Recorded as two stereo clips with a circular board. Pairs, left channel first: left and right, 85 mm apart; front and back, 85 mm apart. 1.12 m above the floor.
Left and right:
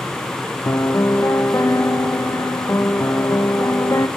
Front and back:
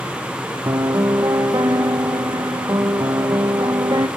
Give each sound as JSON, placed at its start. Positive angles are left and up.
{"t": 0.7, "sound": "a piano", "azimuth_deg": 140, "distance_m": 1.3}